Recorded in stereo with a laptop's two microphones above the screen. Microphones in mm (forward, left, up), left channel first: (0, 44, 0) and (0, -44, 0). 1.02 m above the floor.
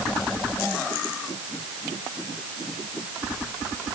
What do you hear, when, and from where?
Only background noise.